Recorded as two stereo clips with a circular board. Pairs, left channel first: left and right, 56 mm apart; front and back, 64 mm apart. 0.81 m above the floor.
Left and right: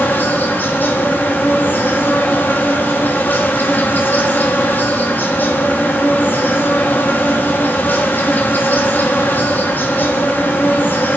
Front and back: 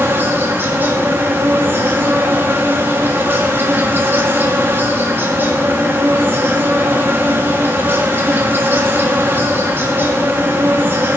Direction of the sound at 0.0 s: 135° left.